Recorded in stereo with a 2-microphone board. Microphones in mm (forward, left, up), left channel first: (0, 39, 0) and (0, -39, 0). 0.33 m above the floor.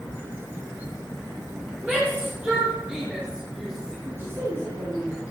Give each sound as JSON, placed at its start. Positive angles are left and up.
{"t": 1.8, "sound": "a shout", "side_deg": -20, "distance_m": 9.0}
{"t": 4.0, "sound": "a woman speaking", "side_deg": -30, "distance_m": 6.5}